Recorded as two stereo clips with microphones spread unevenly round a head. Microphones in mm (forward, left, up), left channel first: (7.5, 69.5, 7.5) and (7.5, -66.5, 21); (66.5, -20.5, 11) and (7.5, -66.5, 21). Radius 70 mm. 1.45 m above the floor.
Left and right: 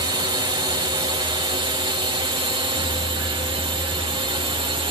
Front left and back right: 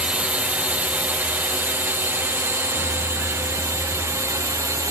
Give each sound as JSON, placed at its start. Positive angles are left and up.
{"t": 0.0, "sound": "a drone", "azimuth_deg": -80}